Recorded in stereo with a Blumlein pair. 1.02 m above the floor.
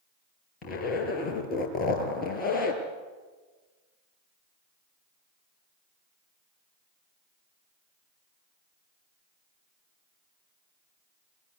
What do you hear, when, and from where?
0.6 s a zipper: 25° left, 5 m